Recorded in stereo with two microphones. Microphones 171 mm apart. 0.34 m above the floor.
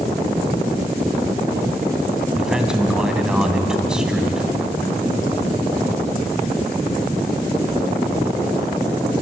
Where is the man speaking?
5° right (ahead or behind), 2.5 m.